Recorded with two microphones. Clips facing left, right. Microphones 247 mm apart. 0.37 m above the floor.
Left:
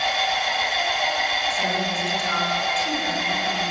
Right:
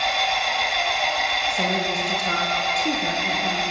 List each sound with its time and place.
0.0 s an engine running: centre (ahead or behind), 1.2 m
1.5 s a woman speaking: 45° right (ahead or behind), 7.5 m